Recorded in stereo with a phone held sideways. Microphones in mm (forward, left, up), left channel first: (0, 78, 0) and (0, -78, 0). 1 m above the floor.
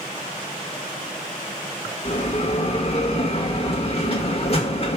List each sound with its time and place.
2.0 s a bell: 45° left (ahead or behind), 1.4 m